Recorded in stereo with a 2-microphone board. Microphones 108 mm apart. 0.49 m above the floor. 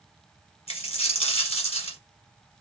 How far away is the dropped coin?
About 1.1 m.